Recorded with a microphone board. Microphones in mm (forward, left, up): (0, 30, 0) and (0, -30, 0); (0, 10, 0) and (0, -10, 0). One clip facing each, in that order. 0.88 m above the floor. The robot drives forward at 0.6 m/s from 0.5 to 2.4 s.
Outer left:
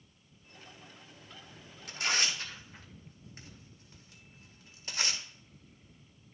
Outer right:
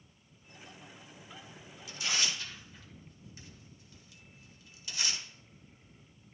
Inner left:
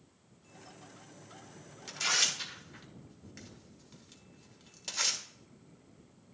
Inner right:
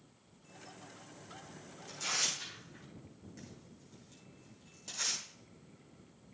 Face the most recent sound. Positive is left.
turn(degrees=40)  # may be behind; listen again after turning